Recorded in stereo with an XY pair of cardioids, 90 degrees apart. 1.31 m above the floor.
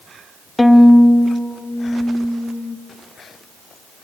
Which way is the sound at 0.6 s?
15° left.